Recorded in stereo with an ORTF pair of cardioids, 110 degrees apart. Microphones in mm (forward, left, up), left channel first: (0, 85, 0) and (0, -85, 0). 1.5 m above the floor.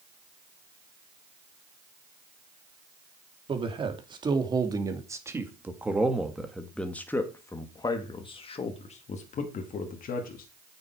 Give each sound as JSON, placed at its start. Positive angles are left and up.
{"t": 3.5, "sound": "a man speaking", "azimuth_deg": -30, "distance_m": 2.5}